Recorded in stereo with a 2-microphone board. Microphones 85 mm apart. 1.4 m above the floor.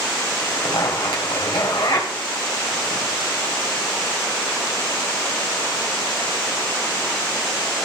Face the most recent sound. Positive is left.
turn(degrees=60)  # may be behind; listen again after turning